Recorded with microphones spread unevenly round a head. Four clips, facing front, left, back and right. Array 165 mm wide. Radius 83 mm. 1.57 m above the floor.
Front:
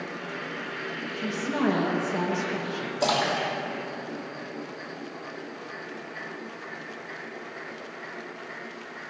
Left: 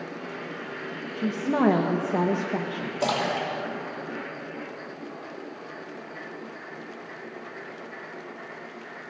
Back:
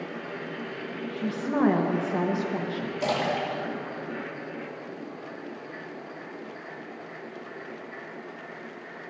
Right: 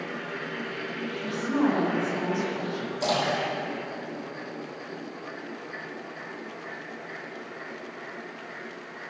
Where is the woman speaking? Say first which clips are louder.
Left 2 dB, back 3 dB; 95° left, 1.2 m.